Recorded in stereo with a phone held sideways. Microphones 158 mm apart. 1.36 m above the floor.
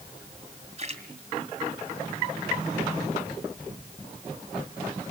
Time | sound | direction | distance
0.8 | a splash | 45° right (ahead or behind) | 2.5 m